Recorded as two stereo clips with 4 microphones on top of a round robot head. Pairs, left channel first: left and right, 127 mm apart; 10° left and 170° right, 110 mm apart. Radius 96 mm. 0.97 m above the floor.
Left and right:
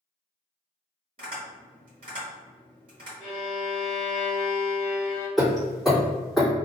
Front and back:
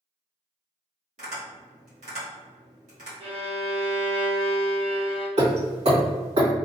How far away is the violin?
About 0.8 m.